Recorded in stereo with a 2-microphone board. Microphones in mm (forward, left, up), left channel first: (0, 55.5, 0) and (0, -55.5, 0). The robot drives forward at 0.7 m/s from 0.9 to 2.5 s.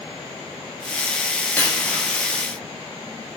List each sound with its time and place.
1.6 s a dropped coin: 15° left (ahead or behind), 8.5 m